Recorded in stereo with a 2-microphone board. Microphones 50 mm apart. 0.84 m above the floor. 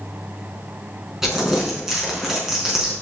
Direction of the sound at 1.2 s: 5° right (ahead or behind).